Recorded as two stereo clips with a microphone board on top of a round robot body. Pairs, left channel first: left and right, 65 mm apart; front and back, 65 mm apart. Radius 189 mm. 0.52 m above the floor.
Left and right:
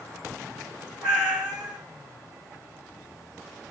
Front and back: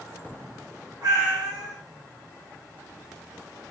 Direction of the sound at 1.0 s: 150° right.